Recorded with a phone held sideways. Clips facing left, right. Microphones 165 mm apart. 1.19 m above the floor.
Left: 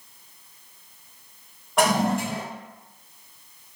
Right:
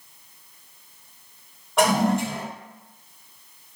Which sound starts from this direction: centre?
A toilet flushing, at 1.8 s.